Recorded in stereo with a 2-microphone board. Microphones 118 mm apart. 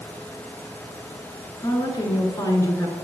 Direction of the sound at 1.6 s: 30° left (ahead or behind).